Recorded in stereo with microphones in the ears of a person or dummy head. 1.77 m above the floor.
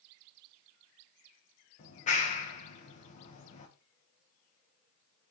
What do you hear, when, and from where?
1.8 s a clap: 40° left (ahead or behind), 1.3 m